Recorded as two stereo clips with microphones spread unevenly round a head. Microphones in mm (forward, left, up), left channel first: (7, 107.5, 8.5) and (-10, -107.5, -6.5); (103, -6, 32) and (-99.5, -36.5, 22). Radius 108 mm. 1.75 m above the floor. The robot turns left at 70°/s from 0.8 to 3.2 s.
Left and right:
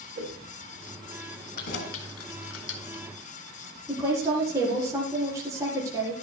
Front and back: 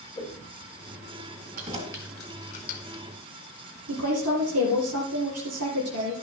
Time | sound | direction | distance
0.1 | a whoosh | 55° right | 3 m
1.6 | keys jangling | 140° left | 2.5 m
3.9 | a woman speaking | 170° right | 4 m